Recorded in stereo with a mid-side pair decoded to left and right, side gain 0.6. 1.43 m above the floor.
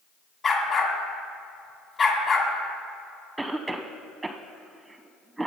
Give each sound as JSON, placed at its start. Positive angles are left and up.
{"t": 0.4, "sound": "a dog barking", "azimuth_deg": 40, "distance_m": 2.5}
{"t": 3.4, "sound": "a cough", "azimuth_deg": -10, "distance_m": 0.8}